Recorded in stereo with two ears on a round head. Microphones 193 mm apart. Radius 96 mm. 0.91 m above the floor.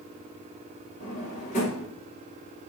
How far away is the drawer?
About 2.5 m.